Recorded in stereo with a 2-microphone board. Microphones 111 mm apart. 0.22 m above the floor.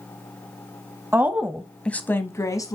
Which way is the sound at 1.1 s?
20° right (ahead or behind).